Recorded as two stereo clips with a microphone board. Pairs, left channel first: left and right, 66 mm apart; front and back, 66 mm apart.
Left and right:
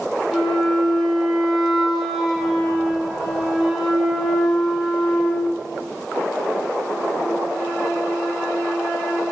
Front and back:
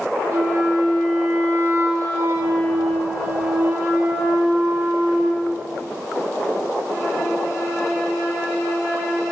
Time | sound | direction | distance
0.3 | a flute | 175° right | 0.8 m